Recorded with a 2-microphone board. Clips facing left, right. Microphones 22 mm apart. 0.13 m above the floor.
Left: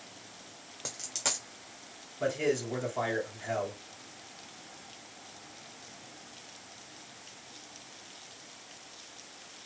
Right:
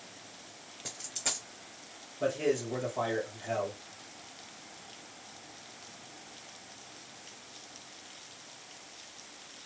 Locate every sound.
0.8 s a dropped coin: 75° left (ahead or behind), 1.1 m
2.2 s a man speaking: 15° left (ahead or behind), 2 m